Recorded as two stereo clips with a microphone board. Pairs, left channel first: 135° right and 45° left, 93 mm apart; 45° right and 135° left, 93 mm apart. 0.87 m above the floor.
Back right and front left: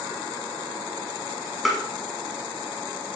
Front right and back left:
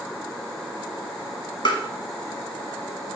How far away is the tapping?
About 1.3 m.